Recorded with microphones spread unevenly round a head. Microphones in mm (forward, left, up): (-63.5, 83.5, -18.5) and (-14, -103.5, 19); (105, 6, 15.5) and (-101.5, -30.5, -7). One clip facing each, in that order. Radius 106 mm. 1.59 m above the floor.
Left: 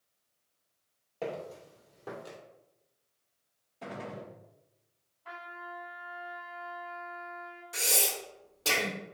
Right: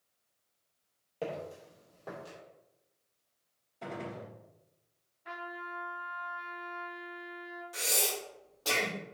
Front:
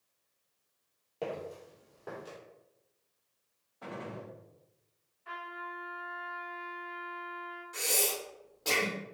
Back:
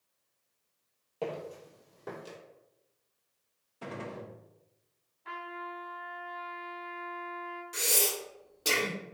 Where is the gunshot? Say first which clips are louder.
Even, back 2 dB; 150° right, 0.8 m.